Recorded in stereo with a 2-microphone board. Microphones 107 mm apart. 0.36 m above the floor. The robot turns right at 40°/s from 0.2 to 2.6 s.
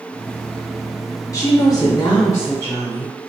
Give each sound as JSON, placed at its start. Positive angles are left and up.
{"t": 1.3, "sound": "a woman speaking", "azimuth_deg": 80, "distance_m": 1.1}